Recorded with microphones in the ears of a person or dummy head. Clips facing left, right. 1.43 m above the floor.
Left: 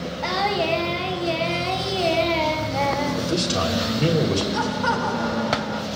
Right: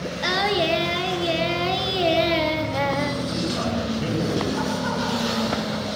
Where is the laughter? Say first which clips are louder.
Left 1 dB; 65° left (ahead or behind), 3.5 m.